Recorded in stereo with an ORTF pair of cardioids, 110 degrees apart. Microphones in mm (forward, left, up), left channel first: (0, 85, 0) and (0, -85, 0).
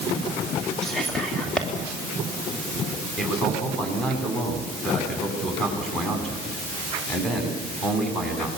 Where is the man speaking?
5° left, 9 m.